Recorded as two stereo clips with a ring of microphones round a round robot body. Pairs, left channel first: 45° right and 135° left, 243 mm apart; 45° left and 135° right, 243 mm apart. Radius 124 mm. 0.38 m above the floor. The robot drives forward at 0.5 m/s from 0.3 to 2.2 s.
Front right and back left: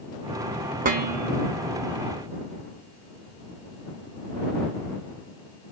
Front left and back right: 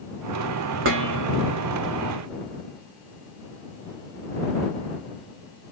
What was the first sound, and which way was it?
Dishes clattering, 170° right.